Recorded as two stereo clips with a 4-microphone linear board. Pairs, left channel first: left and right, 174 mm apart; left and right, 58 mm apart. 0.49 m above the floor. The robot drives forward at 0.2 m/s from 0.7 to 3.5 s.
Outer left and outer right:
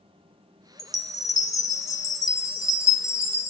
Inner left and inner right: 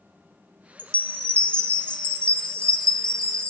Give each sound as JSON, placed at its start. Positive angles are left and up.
{"t": 0.8, "sound": "a chime", "side_deg": 20, "distance_m": 0.9}